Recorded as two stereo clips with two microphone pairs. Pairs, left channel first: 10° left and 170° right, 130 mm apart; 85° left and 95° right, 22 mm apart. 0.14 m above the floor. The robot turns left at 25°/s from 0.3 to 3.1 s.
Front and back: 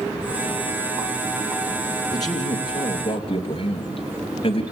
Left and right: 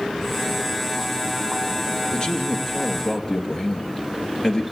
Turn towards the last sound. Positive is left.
turn(degrees=40)